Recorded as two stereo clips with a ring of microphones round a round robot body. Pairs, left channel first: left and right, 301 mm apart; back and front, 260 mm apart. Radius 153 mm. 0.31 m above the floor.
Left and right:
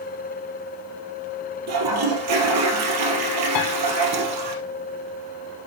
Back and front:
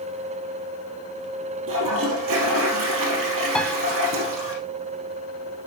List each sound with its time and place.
1.7 s a toilet flushing: 50° right, 2.5 m
3.5 s a piano: 95° left, 1.3 m